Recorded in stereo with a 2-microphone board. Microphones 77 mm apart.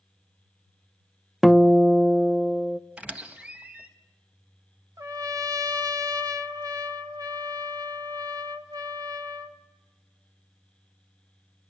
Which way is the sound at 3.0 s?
15° right (ahead or behind).